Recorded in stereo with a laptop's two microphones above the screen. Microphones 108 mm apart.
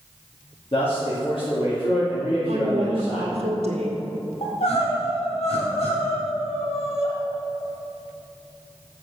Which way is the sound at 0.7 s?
60° left (ahead or behind).